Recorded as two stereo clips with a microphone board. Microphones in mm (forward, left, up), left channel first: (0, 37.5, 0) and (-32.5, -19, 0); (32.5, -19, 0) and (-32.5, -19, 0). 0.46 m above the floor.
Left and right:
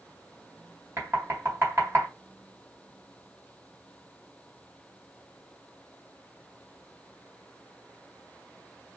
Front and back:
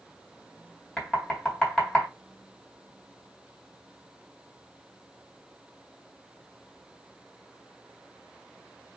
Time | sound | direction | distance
1.0 | knocking | 75° right | 1.8 m